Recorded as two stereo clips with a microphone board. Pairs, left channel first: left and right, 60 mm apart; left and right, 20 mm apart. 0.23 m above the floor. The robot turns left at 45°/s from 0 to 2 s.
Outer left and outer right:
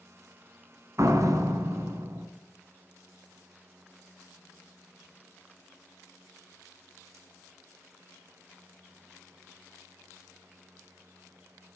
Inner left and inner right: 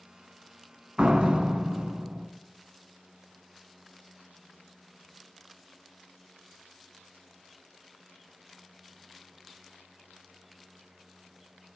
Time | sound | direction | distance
1.0 | a door slam | 70° right | 1.8 m